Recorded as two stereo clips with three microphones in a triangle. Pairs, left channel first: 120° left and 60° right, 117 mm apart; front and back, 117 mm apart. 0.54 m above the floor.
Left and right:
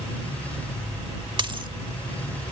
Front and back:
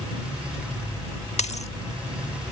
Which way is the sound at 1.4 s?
15° right.